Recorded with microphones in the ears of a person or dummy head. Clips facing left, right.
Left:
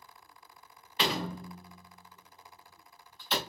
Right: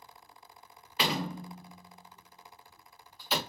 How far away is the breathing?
No breathing in this recording.